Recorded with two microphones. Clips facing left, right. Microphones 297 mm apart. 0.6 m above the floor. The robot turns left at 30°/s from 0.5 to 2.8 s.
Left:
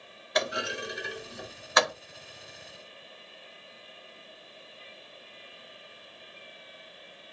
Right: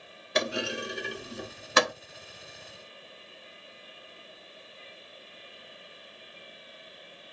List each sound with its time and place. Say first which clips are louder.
0.3 s a clunk: right 1 dB; 35° right (ahead or behind), 1.2 m